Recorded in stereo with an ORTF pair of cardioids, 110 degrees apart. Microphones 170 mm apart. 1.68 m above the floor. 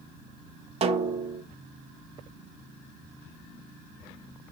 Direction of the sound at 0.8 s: 35° right.